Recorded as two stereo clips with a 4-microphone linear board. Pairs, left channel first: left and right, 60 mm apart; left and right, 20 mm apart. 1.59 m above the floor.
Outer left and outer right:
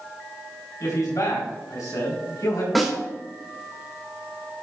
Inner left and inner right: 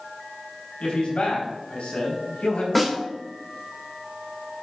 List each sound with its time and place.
0.8 s a man speaking: 85° left, 4.5 m
2.8 s a snare drum: centre (ahead or behind), 2.5 m